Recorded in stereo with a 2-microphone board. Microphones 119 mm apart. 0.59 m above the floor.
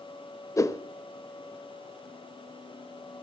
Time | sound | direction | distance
0.6 | a whoosh | 25° left (ahead or behind) | 0.6 m